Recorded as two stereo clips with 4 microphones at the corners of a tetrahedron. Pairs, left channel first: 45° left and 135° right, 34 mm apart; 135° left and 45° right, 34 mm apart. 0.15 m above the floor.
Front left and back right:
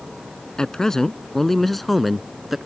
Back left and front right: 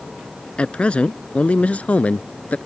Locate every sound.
0.6 s a man speaking: 100° left; by 2.6 s 140° left